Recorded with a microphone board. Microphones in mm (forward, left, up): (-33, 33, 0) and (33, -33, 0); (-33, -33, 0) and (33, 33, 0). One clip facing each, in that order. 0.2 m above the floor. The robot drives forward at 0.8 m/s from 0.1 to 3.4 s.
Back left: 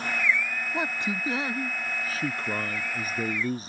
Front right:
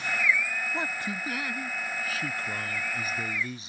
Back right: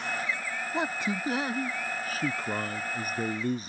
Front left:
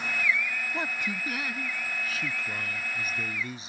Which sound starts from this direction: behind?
A man speaking, at 0.7 s.